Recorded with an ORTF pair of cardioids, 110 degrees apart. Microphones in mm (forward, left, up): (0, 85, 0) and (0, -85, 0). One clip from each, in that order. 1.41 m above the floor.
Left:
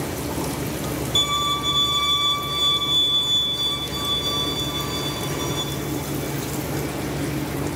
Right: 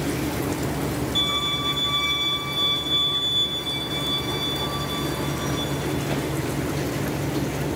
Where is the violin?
35° left, 1.1 m.